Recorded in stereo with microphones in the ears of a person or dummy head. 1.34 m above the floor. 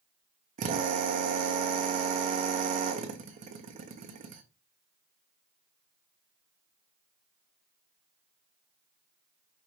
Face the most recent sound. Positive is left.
turn(degrees=-40)  # may be behind; listen again after turning